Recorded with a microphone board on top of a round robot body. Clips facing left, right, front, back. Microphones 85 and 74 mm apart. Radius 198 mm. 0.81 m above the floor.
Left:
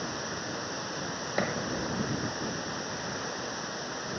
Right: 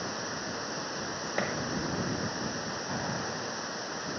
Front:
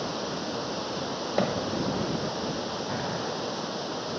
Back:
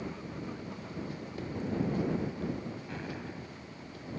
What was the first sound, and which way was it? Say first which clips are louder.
Running water: even, front 8 dB; straight ahead.